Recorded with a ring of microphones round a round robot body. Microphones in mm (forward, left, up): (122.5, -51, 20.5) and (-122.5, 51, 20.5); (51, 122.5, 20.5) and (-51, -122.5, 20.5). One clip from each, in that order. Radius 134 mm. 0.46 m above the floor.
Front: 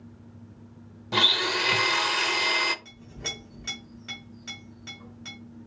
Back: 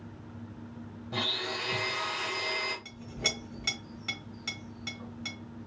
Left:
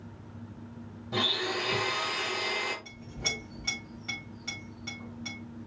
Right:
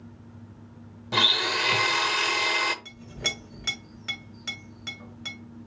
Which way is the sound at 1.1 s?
60° right.